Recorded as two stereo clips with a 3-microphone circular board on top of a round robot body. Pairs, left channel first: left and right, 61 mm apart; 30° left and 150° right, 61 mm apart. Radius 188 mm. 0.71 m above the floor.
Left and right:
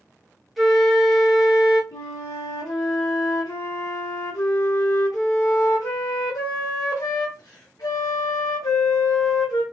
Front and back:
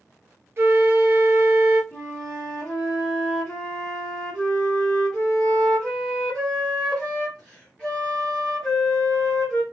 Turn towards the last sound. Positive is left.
turn(degrees=115)